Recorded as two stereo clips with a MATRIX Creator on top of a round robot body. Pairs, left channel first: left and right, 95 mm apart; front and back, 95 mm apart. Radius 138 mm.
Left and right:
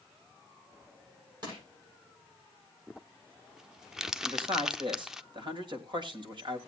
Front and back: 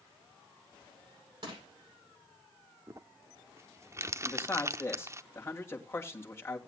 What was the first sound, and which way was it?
Crushing, 135° right.